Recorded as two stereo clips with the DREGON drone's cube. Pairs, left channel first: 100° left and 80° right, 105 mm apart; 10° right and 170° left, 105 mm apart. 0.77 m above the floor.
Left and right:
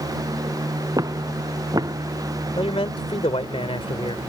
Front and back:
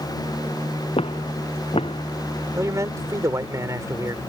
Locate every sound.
1.0 s footsteps: 25° right
2.6 s a man speaking: 115° left